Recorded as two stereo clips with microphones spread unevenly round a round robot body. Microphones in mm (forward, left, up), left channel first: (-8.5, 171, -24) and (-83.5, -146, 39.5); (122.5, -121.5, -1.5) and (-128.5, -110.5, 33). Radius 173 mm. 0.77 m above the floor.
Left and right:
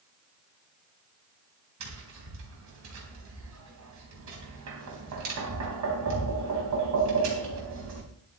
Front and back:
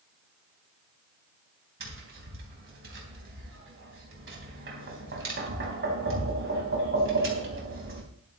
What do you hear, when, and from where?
1.8 s tapping: 145° right, 3.5 m